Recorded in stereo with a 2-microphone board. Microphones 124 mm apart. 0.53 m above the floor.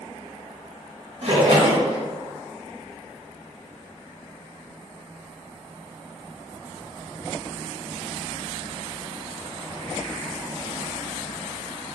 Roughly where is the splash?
Right.